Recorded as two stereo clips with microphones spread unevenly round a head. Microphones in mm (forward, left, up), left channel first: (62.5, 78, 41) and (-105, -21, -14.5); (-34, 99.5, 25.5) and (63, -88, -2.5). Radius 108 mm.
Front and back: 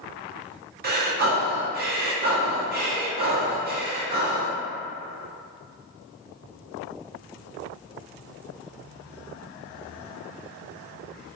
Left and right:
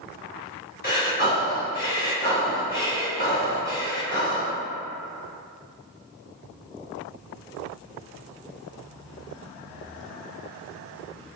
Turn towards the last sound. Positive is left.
turn(degrees=170)